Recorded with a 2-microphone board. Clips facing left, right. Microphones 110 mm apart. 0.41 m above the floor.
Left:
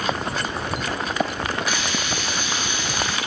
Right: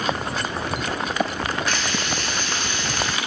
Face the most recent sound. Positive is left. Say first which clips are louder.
# even
turn(degrees=15)  # may be behind; listen again after turning